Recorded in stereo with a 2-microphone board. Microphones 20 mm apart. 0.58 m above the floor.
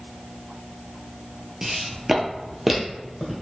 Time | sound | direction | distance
1.6 | footsteps | 25° right (ahead or behind) | 0.6 m